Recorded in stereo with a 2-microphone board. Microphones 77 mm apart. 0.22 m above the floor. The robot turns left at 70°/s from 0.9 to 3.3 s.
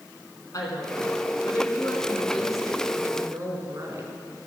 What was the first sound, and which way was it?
A woman speaking, 110° left.